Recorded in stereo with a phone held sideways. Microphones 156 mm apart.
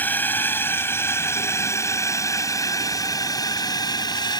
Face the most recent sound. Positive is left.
turn(degrees=25)  # may be behind; listen again after turning